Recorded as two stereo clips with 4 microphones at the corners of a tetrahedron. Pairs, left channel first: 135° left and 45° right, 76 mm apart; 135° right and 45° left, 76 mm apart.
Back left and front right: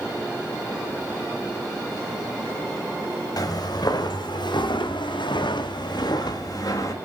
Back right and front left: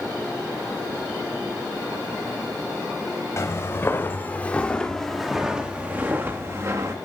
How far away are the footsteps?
About 1.8 m.